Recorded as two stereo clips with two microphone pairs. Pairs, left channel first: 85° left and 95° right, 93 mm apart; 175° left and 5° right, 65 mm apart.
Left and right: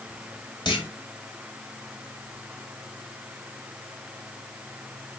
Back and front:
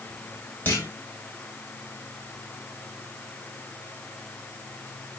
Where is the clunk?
115° left, 4.5 m.